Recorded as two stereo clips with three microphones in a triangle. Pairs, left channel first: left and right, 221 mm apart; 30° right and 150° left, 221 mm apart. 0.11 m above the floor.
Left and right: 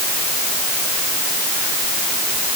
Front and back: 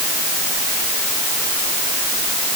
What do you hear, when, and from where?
Only background noise.